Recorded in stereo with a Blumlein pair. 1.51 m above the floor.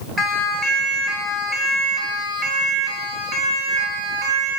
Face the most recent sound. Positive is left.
turn(degrees=-30)